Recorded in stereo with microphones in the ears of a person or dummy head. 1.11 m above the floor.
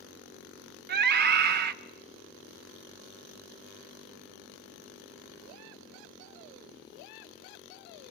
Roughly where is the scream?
Right.